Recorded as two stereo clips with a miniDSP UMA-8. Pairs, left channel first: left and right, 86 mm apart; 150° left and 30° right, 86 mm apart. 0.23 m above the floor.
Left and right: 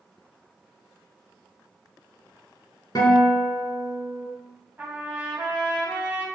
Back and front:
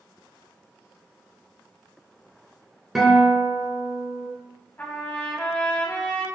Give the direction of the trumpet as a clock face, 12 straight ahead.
5 o'clock.